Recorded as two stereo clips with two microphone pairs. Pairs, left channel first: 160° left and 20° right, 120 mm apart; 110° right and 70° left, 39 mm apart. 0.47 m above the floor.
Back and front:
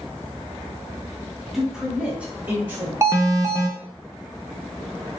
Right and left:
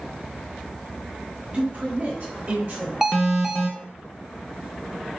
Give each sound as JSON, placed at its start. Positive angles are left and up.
{"t": 1.5, "sound": "a man speaking", "azimuth_deg": 65, "distance_m": 1.2}
{"t": 3.0, "sound": "an alarm", "azimuth_deg": 5, "distance_m": 0.6}